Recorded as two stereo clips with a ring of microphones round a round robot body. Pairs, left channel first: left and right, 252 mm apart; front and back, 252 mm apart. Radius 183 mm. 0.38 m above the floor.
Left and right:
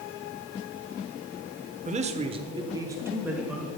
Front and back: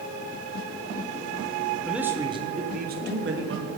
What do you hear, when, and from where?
1.9 s a man speaking: 90° right, 1.0 m; by 3.7 s 175° right, 1.5 m